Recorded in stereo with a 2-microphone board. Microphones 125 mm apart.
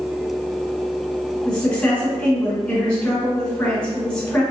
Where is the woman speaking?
10° left (ahead or behind), 1.9 m.